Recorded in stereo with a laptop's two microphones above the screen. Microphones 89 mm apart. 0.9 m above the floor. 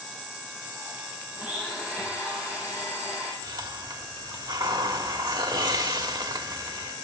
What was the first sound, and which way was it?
A blender, 15° right (ahead or behind).